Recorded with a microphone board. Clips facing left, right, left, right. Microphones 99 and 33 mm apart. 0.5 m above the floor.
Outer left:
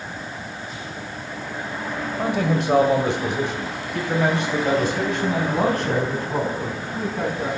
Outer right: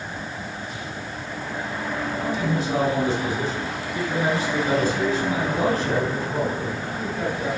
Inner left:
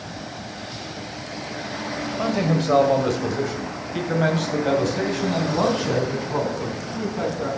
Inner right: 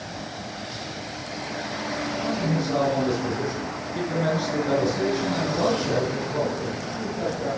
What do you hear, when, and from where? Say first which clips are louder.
2.2 s a man speaking: outer left 5 dB, inner left 5 dB; 65° left (ahead or behind), 1.8 m; by 7.5 s 60° left (ahead or behind), 4.5 m